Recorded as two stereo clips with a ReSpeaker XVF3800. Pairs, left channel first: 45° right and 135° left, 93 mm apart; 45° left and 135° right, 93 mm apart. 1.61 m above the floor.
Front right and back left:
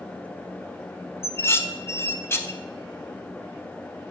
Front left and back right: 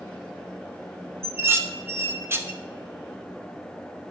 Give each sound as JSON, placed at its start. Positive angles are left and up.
{"t": 1.2, "sound": "dishes clattering", "azimuth_deg": -90, "distance_m": 0.8}